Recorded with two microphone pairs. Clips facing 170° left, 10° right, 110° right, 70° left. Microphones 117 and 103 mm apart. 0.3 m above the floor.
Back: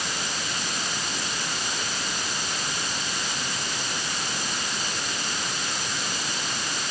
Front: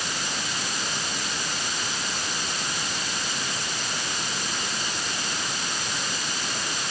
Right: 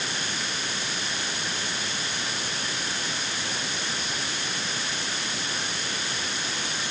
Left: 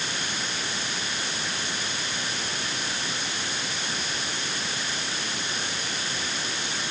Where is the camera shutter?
No camera shutter in this recording.